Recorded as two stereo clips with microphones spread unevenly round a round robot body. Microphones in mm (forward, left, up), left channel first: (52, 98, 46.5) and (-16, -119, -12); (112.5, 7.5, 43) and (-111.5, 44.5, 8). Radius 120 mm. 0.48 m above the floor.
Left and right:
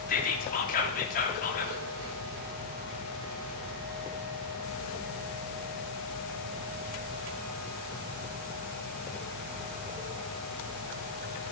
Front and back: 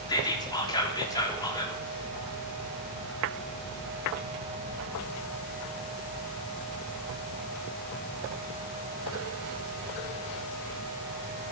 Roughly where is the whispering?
Ahead left.